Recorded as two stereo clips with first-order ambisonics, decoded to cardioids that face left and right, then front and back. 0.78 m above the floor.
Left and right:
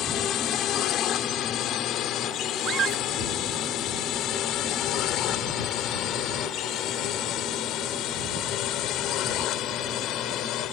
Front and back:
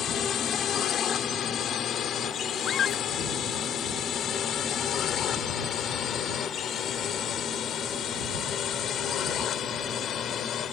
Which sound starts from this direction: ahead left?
A drone, at 0.0 s.